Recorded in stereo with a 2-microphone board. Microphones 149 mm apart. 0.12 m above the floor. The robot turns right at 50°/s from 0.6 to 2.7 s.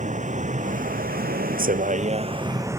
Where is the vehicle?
125° right; by 2.8 s 20° right.